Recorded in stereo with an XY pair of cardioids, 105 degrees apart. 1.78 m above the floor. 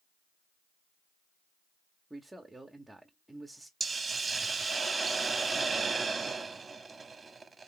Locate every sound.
2.1 s a man speaking: 15° right, 0.8 m
3.8 s a hiss: 30° right, 0.9 m